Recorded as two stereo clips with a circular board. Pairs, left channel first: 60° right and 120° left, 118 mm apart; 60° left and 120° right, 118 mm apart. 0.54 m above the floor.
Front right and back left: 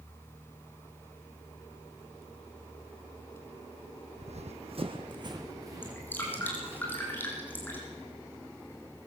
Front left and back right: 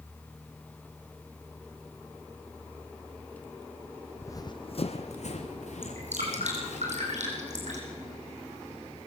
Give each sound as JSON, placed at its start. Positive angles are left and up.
{"t": 4.2, "sound": "running footsteps", "azimuth_deg": 130, "distance_m": 1.3}
{"t": 5.8, "sound": "dripping", "azimuth_deg": -135, "distance_m": 6.0}